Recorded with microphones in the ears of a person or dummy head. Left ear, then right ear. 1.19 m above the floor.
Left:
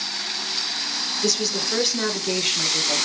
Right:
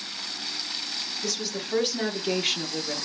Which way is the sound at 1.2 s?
30° left (ahead or behind).